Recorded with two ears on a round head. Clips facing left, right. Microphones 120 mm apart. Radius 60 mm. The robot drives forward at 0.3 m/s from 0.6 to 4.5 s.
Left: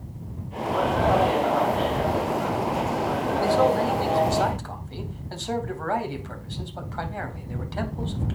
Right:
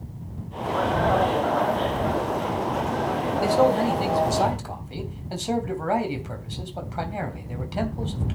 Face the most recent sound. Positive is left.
turn(degrees=-20)  # may be behind; listen again after turning